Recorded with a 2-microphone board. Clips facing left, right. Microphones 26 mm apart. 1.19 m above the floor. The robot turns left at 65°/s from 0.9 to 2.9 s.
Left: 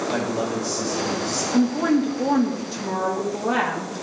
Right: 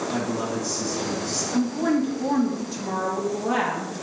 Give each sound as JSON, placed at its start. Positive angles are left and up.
{"t": 0.1, "sound": "a man speaking", "azimuth_deg": 60, "distance_m": 5.5}
{"t": 1.5, "sound": "a woman speaking", "azimuth_deg": 95, "distance_m": 2.0}